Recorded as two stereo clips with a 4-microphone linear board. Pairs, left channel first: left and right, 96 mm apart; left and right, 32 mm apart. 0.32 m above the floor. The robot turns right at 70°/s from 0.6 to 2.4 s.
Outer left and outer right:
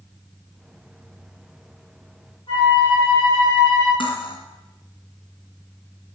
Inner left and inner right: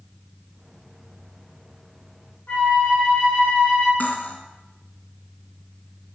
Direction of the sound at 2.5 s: 55° left (ahead or behind).